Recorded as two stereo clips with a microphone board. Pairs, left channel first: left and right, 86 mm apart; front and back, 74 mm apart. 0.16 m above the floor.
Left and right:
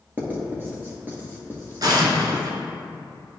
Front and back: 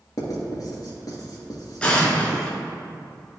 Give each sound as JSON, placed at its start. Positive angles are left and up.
{"t": 0.2, "sound": "writing", "azimuth_deg": -30, "distance_m": 1.8}
{"t": 1.8, "sound": "an explosion", "azimuth_deg": -75, "distance_m": 1.3}